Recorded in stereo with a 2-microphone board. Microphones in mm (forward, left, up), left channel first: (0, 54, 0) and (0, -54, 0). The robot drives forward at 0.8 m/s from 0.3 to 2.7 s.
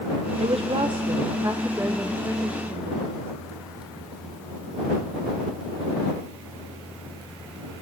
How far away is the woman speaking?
About 0.8 m.